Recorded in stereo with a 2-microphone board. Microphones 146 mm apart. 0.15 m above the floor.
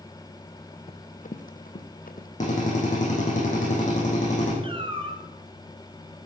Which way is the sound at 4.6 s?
35° right (ahead or behind).